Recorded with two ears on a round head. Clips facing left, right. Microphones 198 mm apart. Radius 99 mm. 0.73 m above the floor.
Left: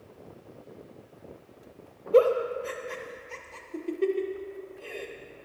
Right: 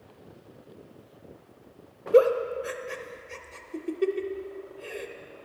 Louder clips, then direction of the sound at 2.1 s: Right 1 dB; 15° right (ahead or behind).